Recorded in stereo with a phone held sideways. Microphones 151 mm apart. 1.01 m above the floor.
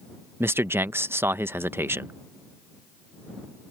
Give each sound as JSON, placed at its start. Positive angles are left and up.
{"t": 0.4, "sound": "a man speaking", "side_deg": -15}